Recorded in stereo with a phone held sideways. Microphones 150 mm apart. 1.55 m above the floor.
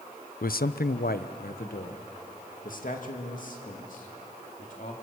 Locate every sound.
0.4 s a man speaking: 70° left (ahead or behind), 0.5 m; by 4.9 s 60° left (ahead or behind), 4 m